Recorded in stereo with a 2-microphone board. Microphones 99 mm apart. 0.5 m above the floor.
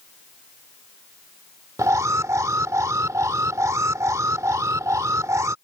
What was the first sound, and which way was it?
An alarm, 30° right (ahead or behind).